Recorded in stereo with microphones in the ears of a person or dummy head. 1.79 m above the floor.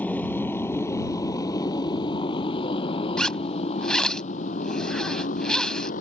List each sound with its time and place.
0.0 s a motorcycle: 5° left (ahead or behind); by 6.0 s 50° left (ahead or behind)
3.2 s a zipper: centre (ahead or behind)